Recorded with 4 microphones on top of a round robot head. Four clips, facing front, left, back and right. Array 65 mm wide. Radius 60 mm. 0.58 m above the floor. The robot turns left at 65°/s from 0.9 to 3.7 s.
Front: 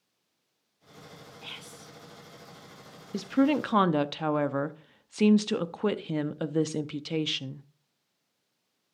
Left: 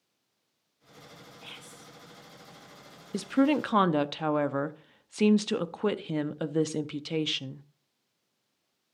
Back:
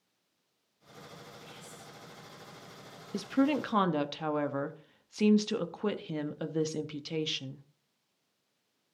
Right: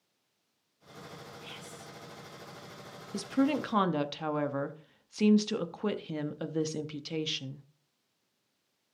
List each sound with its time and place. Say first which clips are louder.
1.4 s whispering: right 1 dB, front 4 dB; 20° left, 1.7 m; by 1.9 s 15° right, 1.7 m
3.1 s a woman speaking: left 4 dB, front 4 dB; 85° left, 0.7 m; by 7.7 s 50° left, 0.7 m